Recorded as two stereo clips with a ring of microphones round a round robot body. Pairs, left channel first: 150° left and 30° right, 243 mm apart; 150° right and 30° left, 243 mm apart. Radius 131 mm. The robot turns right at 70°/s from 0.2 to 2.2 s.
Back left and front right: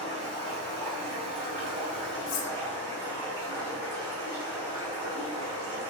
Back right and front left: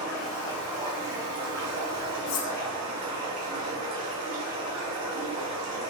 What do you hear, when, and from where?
0.0 s running water: 90° right, 2.0 m; by 5.9 s 50° left, 2.0 m
2.3 s cutlery clinking: 170° right, 0.6 m